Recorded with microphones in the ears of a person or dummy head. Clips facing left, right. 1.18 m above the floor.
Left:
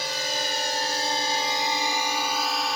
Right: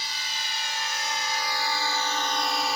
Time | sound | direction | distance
0.0 | a drone | 45° left (ahead or behind) | ?